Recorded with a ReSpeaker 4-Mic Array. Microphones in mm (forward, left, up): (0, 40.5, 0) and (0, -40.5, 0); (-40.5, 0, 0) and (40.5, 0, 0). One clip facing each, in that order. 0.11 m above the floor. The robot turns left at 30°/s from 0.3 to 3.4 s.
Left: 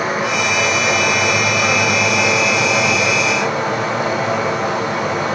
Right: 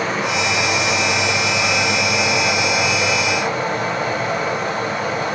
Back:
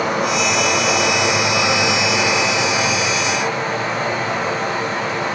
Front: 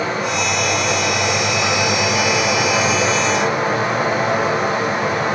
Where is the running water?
170° left, 6 m; by 5.3 s 75° left, 6 m.